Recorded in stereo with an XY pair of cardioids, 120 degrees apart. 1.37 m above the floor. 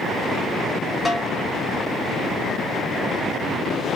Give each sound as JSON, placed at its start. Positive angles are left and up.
{"t": 1.1, "sound": "a snare drum", "azimuth_deg": 10, "distance_m": 0.7}